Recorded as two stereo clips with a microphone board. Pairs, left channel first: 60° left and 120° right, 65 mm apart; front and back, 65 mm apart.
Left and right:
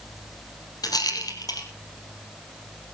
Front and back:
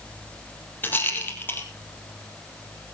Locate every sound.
0.8 s a rattle: 60° left, 3.5 m